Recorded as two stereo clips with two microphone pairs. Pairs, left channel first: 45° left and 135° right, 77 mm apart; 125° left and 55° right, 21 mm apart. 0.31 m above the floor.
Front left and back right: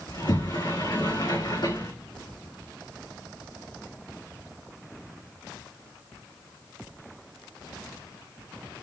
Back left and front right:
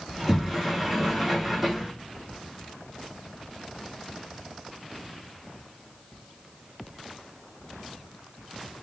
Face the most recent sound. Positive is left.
turn(degrees=20)